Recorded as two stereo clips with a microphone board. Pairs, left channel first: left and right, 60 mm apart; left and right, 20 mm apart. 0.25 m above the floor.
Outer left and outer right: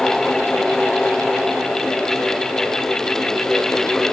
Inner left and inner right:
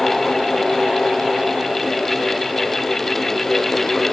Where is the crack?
I don't hear a crack.